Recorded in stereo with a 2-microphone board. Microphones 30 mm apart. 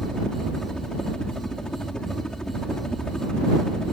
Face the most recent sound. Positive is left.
turn(degrees=25)  # may be behind; listen again after turning